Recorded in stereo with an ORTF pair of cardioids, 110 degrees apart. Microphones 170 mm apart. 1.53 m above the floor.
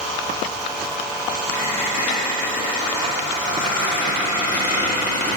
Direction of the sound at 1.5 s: 60° left.